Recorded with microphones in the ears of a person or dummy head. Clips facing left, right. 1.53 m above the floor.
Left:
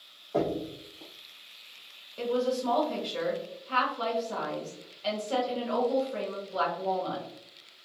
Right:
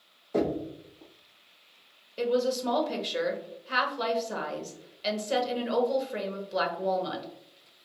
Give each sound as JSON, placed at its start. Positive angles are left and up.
{"t": 0.3, "sound": "knocking", "side_deg": -30, "distance_m": 1.1}
{"t": 2.2, "sound": "a woman speaking", "side_deg": -20, "distance_m": 0.9}